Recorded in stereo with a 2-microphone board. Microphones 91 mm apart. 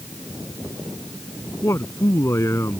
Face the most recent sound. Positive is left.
turn(degrees=30)  # may be behind; listen again after turning